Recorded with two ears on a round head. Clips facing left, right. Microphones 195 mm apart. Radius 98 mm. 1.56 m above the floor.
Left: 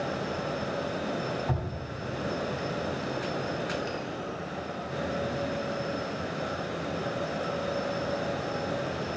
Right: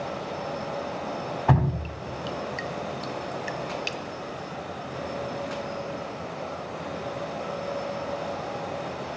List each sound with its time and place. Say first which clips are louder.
1.5 s dripping: right 8 dB; 75° right (ahead or behind), 0.8 m